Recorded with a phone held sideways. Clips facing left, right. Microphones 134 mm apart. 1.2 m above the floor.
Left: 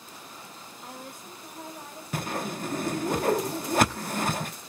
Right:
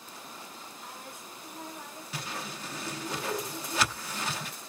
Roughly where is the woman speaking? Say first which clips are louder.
Left 6 dB; left.